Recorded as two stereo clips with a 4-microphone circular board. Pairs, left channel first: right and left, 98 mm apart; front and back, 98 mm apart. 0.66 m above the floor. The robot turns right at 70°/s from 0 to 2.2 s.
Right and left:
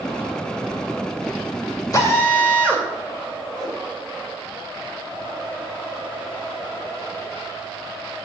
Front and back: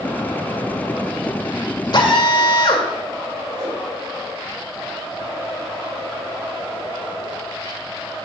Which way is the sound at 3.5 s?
175° right.